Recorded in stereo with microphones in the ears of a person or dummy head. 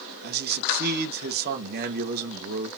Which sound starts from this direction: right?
A man speaking, at 0.2 s.